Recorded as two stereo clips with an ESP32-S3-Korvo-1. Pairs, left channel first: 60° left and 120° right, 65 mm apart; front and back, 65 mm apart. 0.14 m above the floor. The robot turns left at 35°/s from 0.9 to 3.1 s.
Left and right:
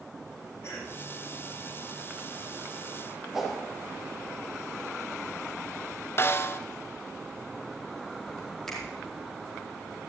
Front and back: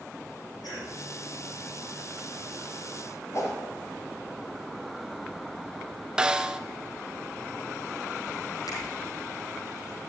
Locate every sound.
0.6 s a cough: 5° left, 5 m
3.3 s a whoosh: 35° right, 3.5 m
6.2 s a snare drum: 105° left, 0.5 m
8.7 s a finger snap: 25° right, 4 m